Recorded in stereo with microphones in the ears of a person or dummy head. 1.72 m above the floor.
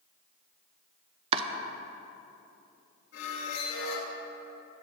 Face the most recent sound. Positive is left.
turn(degrees=65)  # may be behind; listen again after turning